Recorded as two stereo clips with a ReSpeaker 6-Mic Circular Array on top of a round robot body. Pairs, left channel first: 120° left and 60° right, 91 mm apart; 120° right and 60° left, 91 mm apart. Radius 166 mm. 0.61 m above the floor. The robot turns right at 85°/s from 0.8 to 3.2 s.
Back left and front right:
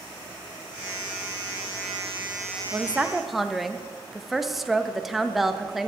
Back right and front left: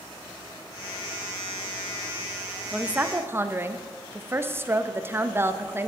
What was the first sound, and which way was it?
A woman speaking, 15° right.